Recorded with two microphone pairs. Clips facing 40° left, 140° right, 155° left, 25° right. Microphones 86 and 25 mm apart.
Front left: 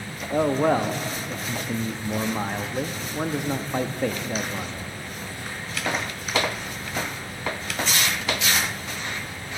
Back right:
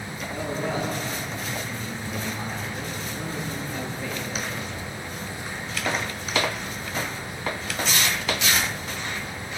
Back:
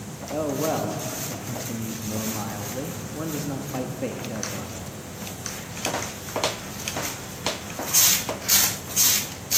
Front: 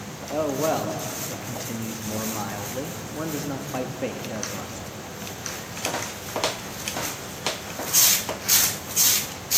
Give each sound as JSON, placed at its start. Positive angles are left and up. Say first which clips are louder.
{"t": 0.3, "sound": "a man speaking", "louder": "front left 9 dB, front 1 dB", "azimuth_deg": 45, "distance_m": 0.7}